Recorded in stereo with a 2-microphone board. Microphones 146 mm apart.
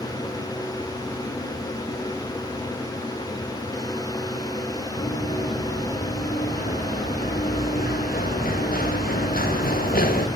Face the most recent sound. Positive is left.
turn(degrees=80)